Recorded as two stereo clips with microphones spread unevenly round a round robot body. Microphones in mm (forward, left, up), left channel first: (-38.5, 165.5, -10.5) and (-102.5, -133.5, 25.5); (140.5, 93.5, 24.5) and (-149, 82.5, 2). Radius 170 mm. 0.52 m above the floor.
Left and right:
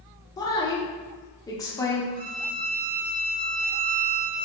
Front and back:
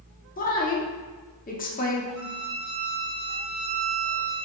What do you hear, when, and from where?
0.4 s a woman speaking: 30° left, 0.8 m
2.1 s a violin: 165° right, 1.0 m